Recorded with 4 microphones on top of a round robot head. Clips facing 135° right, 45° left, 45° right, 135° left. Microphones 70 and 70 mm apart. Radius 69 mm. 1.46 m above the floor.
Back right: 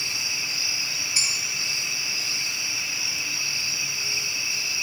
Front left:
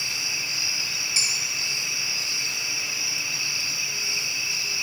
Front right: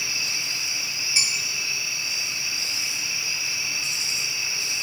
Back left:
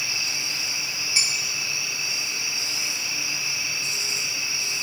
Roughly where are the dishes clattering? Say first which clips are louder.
Even, even; ahead left.